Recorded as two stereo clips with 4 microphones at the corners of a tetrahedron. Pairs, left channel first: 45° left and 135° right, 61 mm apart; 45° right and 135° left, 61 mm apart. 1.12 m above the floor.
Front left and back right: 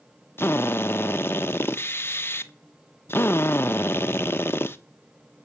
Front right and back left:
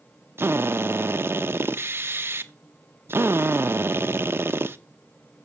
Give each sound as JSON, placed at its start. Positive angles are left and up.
{"t": 0.4, "sound": "a drill", "azimuth_deg": 90, "distance_m": 0.8}